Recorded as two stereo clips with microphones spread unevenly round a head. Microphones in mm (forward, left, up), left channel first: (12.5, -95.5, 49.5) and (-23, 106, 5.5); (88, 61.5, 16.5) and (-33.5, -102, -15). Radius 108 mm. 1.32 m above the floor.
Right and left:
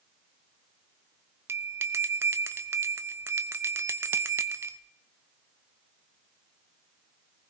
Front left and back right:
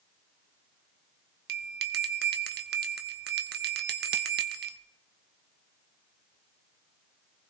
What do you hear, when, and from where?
1.5 s a bell: 175° right, 0.8 m